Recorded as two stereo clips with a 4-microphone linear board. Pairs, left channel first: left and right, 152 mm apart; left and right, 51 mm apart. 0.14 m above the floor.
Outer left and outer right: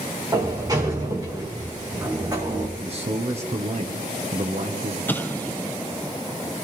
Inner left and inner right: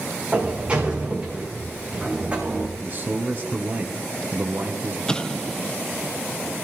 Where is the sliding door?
25° right (ahead or behind), 3.5 m.